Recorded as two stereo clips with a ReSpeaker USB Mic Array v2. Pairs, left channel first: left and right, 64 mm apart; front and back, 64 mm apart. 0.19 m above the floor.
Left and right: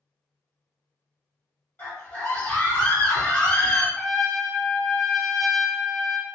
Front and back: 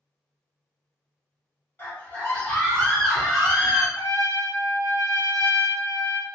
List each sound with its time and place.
1.8 s a scream: 45° left, 1.8 m; by 3.9 s 115° left, 1.6 m
4.0 s a trumpet: 5° left, 0.6 m